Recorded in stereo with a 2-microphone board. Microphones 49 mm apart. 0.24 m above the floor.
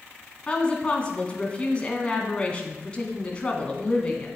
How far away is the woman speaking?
About 1.8 m.